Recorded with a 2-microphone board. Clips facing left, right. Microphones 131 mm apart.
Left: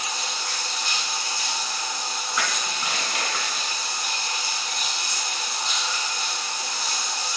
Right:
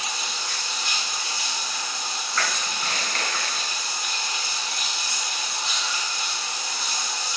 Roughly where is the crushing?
Centre.